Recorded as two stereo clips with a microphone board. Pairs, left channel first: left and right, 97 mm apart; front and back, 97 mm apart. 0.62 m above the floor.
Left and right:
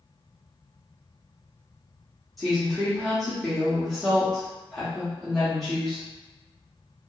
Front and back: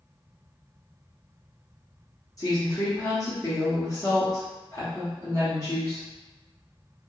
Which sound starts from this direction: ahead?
A woman speaking, at 2.4 s.